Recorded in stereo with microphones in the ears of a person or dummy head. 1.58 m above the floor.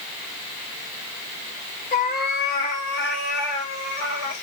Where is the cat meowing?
45° left (ahead or behind), 1.1 m; by 4.4 s 60° left (ahead or behind), 2.5 m.